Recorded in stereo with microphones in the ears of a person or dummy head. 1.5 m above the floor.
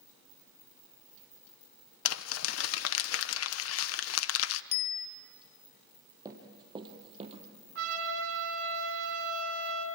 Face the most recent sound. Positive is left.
turn(degrees=-80)